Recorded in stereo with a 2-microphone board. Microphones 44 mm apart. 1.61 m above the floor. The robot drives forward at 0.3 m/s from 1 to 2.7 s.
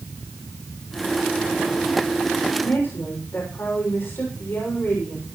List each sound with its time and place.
2.6 s a woman speaking: 65° left (ahead or behind), 6.5 m